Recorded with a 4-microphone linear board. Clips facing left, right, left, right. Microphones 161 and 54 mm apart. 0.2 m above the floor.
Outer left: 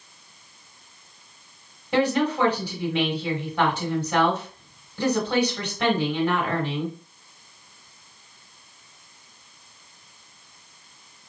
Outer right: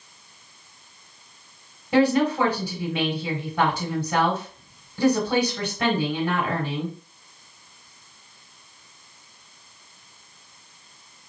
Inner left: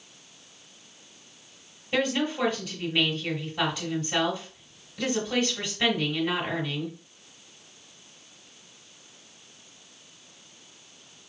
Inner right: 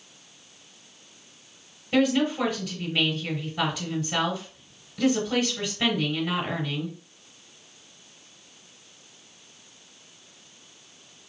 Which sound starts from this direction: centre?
A woman speaking, at 1.9 s.